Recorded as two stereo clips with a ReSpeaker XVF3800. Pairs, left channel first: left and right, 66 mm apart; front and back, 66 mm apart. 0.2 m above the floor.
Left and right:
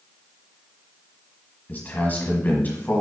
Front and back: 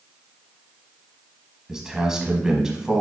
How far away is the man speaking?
About 1.2 m.